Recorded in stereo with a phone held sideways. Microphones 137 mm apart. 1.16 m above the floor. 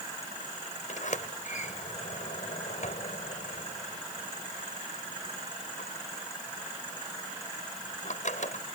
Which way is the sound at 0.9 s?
65° left (ahead or behind).